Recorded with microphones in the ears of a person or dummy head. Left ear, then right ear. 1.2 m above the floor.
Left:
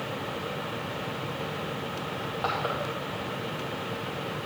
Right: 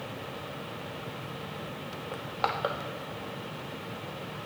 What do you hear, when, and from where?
2.1 s crushing: 40° right (ahead or behind), 0.7 m